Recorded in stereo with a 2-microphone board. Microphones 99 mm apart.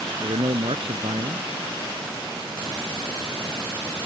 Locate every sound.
0.2 s a man speaking: 65° right (ahead or behind)